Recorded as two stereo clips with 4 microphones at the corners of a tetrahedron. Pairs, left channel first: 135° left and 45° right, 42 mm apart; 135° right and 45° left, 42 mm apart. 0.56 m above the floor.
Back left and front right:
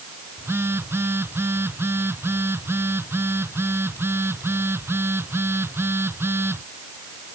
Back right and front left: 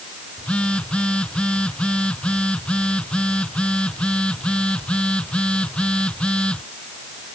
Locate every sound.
0.4 s a phone buzzing: 70° right